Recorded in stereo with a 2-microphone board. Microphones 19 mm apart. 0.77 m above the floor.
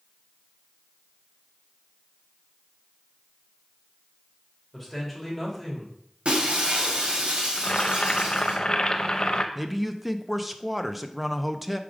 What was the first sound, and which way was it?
A man speaking, 5° left (ahead or behind).